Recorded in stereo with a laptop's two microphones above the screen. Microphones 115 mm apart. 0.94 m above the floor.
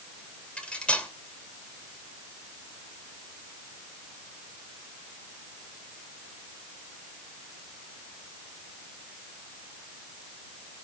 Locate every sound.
0.6 s cutlery clinking: 10° left (ahead or behind), 2 m